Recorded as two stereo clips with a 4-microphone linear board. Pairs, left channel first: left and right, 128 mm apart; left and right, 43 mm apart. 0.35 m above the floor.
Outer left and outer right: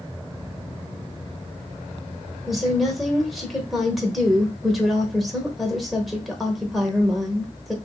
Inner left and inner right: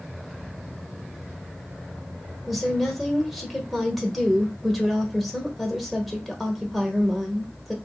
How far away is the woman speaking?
About 1.0 m.